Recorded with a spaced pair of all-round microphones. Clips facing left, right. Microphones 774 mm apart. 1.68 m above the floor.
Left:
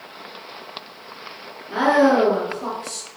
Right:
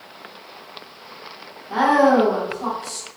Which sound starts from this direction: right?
A woman speaking, at 1.7 s.